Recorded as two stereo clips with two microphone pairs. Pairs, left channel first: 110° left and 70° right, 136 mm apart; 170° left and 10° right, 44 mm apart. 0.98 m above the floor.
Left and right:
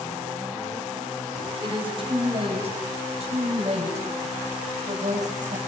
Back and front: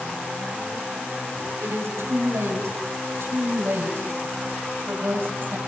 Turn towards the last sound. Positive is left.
turn(degrees=-45)